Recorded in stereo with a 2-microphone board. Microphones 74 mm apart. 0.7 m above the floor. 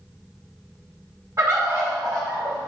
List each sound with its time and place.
1.4 s a bird: 45° right (ahead or behind), 1.7 m